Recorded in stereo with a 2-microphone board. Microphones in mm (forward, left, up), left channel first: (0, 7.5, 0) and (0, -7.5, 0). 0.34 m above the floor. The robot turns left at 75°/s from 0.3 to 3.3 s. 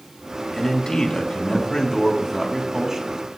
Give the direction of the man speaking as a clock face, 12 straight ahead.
7 o'clock.